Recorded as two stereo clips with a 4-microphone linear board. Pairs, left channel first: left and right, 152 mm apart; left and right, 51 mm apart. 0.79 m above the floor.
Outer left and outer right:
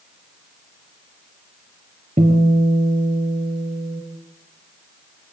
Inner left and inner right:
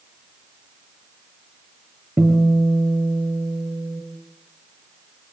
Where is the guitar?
45° right (ahead or behind), 4.5 m.